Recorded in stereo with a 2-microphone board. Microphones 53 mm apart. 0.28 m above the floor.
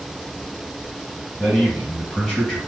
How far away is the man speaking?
About 1.3 m.